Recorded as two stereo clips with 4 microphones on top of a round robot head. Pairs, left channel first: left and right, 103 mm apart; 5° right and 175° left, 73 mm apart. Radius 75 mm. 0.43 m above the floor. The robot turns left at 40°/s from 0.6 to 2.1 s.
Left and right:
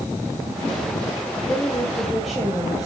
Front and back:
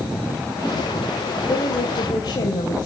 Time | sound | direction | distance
1.5 | a woman speaking | 20° left | 2 m